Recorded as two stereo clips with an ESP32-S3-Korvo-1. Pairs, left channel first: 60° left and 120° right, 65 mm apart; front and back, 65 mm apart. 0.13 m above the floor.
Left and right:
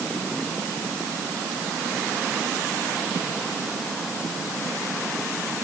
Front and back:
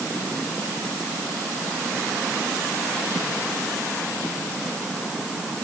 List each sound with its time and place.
Only background noise.